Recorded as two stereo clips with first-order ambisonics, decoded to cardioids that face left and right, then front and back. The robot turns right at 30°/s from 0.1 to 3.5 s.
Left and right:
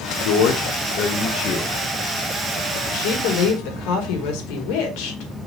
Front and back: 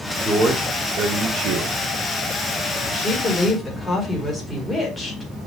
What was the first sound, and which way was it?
A man speaking, 105° left.